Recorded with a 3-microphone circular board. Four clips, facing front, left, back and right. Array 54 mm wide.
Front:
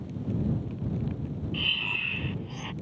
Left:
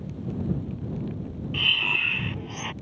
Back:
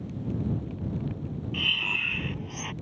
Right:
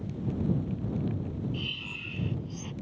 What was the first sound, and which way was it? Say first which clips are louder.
Breathing: left 13 dB, back 2 dB; 100° left.